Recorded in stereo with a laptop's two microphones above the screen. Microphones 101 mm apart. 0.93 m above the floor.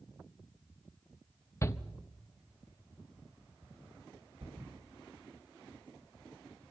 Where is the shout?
30° left (ahead or behind), 1.1 m.